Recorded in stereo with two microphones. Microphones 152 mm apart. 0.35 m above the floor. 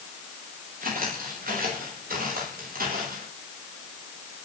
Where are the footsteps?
70° right (ahead or behind), 9.5 m; by 3.2 s 80° right, 11 m.